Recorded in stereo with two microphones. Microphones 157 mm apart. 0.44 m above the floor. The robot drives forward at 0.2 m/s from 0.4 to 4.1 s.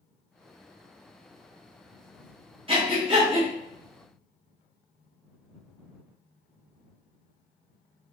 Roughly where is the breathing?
Right.